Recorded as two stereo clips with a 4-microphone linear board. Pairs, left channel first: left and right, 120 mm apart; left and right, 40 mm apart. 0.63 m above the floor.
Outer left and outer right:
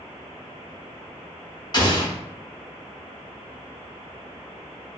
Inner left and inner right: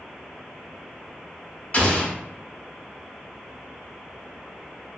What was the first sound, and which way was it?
An explosion, 35° left (ahead or behind).